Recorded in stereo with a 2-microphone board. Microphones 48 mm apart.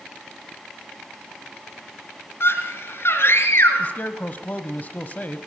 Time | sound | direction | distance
2.4 | a scream | 55° left (ahead or behind) | 3.5 m
3.8 | a man speaking | 35° left (ahead or behind) | 1.1 m